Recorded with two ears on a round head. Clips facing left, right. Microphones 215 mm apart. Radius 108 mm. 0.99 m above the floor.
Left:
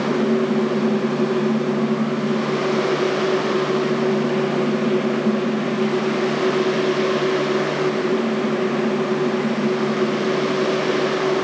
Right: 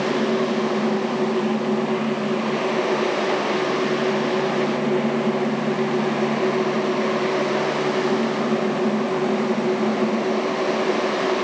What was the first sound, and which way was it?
Only background noise.